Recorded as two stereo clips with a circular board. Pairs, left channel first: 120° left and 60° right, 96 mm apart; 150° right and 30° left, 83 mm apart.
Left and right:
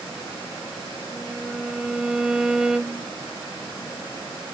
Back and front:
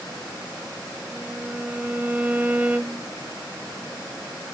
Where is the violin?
5° left, 0.5 m.